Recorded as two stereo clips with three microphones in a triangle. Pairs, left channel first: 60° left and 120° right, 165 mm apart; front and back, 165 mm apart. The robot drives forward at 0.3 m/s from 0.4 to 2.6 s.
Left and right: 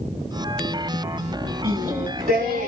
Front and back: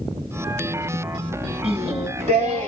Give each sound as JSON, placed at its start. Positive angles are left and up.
{"t": 1.6, "sound": "singing", "azimuth_deg": -135, "distance_m": 1.4}